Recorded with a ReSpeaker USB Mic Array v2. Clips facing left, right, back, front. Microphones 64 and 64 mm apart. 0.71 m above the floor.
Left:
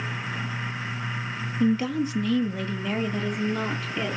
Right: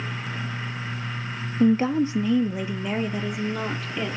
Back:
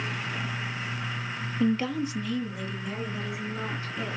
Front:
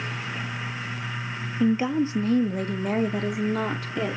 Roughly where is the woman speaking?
Right.